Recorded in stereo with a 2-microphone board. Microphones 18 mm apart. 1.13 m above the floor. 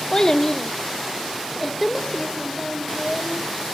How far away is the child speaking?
About 1.0 m.